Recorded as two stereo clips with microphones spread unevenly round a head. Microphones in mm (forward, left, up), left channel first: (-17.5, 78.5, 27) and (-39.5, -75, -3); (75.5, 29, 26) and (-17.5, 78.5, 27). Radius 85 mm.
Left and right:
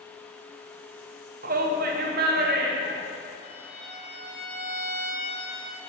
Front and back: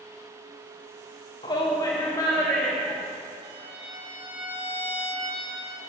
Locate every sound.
1.4 s a shout: 80° right, 1.1 m; by 3.0 s 105° right, 2.0 m
3.4 s a violin: 120° left, 3 m